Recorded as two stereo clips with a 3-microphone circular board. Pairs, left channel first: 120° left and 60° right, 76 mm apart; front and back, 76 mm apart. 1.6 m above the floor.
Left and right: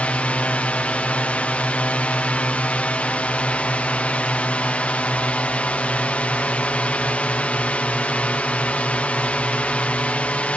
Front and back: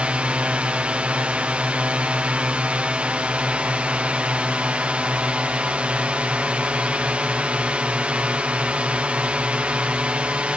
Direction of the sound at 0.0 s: 145° left.